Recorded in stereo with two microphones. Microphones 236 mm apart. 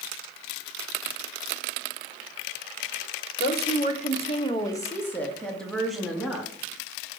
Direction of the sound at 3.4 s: 45° left (ahead or behind).